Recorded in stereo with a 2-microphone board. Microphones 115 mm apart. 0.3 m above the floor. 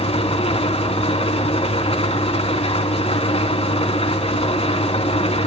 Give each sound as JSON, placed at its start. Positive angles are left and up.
{"t": 0.0, "sound": "an engine running", "side_deg": 60, "distance_m": 2.5}